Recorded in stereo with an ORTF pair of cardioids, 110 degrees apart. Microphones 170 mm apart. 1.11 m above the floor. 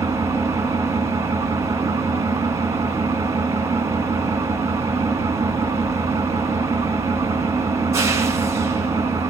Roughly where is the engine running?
Ahead.